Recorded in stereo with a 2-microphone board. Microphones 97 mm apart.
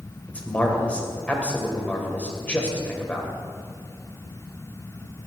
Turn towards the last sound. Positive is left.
turn(degrees=15)  # may be behind; listen again after turning